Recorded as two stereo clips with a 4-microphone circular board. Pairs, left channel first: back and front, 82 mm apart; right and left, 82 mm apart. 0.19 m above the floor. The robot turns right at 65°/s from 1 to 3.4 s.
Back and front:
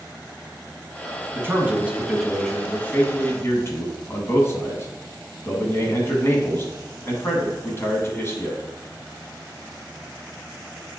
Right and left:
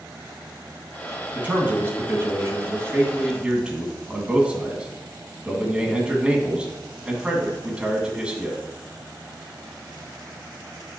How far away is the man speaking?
About 1.7 m.